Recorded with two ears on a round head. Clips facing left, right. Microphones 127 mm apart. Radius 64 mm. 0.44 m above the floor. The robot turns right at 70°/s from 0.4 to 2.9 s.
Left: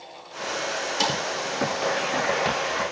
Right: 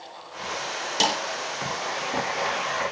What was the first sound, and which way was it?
A snare drum, 35° right (ahead or behind).